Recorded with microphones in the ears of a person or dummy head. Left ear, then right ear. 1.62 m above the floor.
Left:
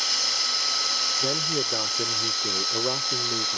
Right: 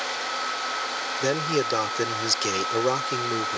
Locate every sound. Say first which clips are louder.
0.0 s running water: left 4 dB; 60° left (ahead or behind)
1.2 s a man speaking: even; 80° right